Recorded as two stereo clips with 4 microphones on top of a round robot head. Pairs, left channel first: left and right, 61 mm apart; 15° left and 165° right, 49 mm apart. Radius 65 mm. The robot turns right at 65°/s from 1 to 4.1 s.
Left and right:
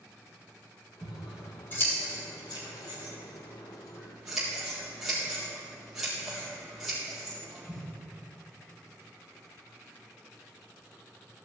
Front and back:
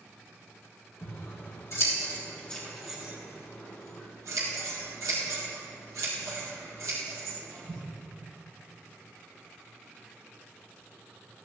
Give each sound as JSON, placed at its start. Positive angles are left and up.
{"t": 1.0, "sound": "scissors", "azimuth_deg": -15, "distance_m": 4.5}